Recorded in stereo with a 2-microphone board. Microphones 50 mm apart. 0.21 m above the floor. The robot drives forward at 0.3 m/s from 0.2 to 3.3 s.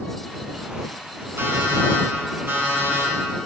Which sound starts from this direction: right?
An alarm clock, at 1.4 s.